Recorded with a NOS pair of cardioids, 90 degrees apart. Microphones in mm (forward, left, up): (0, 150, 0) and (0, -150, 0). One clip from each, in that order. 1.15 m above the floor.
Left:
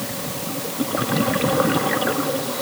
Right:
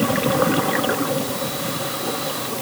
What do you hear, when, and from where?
Only background noise.